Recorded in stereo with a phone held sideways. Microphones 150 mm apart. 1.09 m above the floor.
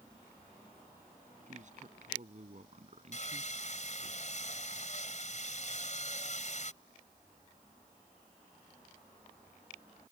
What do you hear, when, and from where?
1.5 s a man speaking: 55° right (ahead or behind); by 4.1 s 45° right (ahead or behind)
3.1 s sawing: 55° left (ahead or behind)